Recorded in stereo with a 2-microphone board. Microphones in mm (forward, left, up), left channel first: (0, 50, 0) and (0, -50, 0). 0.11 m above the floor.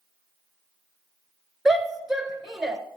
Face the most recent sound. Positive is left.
turn(degrees=-5)  # may be behind; listen again after turning